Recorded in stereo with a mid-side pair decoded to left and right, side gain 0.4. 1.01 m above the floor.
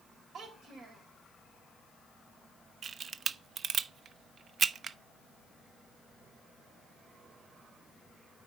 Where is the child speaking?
65° right, 4 m.